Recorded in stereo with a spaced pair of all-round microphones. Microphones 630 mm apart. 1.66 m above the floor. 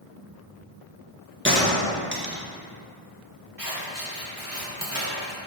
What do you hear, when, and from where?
1.4 s a gunshot: 15° right (ahead or behind), 1.1 m
3.6 s scissors: 30° right (ahead or behind), 2 m